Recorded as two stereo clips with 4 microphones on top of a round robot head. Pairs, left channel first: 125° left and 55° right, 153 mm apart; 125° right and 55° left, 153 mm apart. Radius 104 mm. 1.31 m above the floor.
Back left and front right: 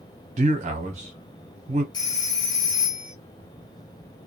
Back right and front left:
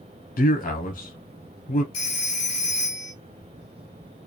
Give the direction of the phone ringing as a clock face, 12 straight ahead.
6 o'clock.